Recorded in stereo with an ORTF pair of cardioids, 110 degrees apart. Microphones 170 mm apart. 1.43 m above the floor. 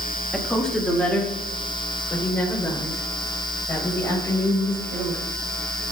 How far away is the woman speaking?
About 2.5 m.